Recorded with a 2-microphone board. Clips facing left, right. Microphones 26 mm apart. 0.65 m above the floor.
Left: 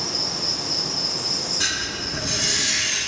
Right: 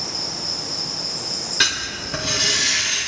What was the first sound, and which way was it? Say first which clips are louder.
An insect: left 2 dB; 50° left (ahead or behind).